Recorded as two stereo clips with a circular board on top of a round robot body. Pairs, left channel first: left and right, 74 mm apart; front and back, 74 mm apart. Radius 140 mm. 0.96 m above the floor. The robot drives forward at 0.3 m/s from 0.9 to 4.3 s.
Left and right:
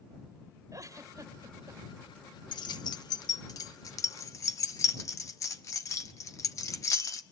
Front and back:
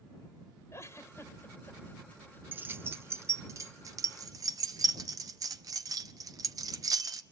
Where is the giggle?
50° right, 1.6 m; by 1.8 s 60° right, 1.4 m.